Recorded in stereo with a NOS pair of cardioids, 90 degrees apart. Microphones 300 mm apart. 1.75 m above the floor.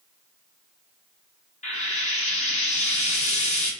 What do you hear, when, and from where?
1.6 s frying: 25° left, 1.7 m